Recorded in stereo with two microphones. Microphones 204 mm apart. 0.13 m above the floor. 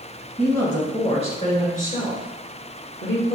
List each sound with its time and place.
0.4 s a woman speaking: 10° left (ahead or behind), 1.4 m; by 3.4 s 60° left (ahead or behind), 2.5 m